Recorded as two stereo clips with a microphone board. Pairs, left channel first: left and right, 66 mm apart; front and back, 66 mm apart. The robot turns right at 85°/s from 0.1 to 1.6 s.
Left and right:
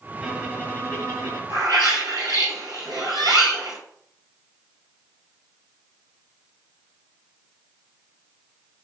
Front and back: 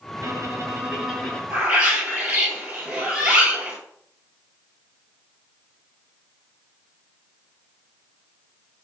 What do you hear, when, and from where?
0.2 s a violin: straight behind, 2.5 m; by 1.4 s 75° right, 2.5 m
1.5 s a bird: 115° right, 1.9 m; by 3.8 s 105° right, 1.9 m